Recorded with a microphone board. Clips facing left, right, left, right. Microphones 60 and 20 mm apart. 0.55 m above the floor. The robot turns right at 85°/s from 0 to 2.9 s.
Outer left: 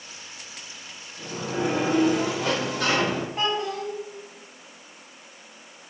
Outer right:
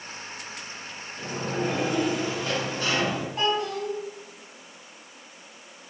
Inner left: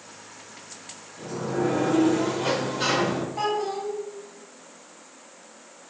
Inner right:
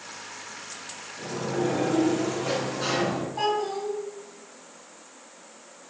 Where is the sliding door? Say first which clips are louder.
Outer left 1 dB, inner left 1 dB; 25° right, 0.6 m; by 3.3 s 125° left, 0.6 m.